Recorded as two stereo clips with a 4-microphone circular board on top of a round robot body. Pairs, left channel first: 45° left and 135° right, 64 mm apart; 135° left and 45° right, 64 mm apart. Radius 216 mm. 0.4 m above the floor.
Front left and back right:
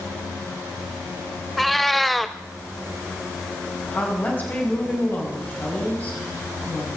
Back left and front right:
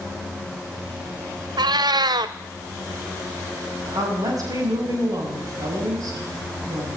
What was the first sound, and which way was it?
A cat meowing, 45° right.